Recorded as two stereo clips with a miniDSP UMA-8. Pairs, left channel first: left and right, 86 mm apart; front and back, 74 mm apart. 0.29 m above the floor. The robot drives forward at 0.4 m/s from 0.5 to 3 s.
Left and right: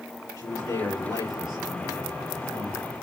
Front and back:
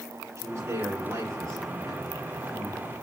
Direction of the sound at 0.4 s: 130° left.